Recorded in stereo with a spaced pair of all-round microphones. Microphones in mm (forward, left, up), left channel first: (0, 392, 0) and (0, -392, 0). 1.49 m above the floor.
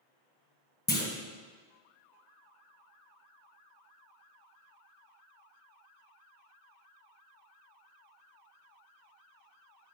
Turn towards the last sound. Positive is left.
turn(degrees=15)  # may be behind; listen again after turning